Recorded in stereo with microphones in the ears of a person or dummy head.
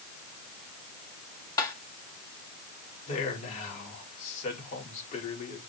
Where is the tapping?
20° left (ahead or behind), 1.8 m.